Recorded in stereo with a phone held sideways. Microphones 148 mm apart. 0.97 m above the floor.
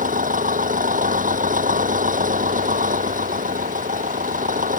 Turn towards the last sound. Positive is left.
turn(degrees=-65)  # may be behind; listen again after turning